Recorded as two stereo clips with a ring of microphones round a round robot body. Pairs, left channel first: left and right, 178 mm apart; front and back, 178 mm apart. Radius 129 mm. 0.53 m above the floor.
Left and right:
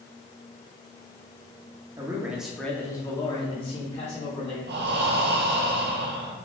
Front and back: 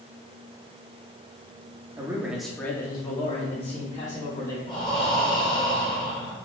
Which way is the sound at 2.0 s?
135° right.